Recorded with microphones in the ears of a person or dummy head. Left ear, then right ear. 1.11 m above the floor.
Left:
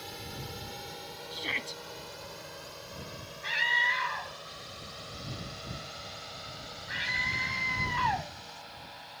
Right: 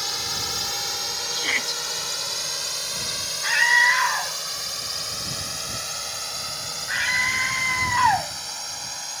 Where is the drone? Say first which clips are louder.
Right 15 dB; 50° right (ahead or behind); by 9.2 s 80° right.